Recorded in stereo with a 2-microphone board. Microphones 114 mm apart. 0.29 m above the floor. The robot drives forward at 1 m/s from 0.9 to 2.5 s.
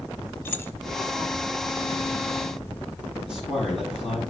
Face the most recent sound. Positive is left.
turn(degrees=-5)  # may be behind; listen again after turning